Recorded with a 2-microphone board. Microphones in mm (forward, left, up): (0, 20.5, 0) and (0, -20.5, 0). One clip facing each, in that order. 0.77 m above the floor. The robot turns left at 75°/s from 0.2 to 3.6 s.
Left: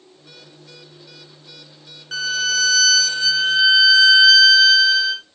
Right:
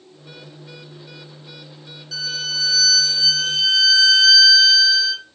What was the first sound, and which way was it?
A violin, 130° left.